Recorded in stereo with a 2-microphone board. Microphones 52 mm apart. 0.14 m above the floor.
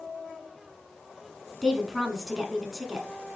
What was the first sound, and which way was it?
A woman speaking, centre (ahead or behind).